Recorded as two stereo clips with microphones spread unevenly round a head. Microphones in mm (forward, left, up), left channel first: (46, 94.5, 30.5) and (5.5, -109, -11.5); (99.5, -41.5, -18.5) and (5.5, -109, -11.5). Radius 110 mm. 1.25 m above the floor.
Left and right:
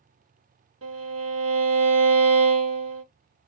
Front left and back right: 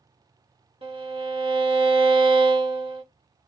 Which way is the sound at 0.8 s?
100° right.